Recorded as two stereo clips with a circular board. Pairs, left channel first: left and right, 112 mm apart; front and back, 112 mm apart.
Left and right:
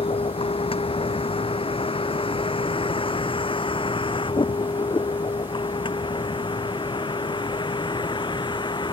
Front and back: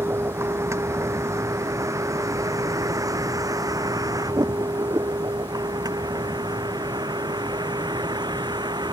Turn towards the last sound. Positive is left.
turn(degrees=135)